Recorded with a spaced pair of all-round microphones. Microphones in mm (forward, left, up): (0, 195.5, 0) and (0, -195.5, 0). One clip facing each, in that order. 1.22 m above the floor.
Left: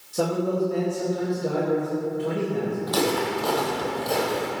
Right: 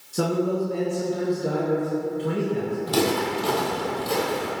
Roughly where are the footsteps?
Right.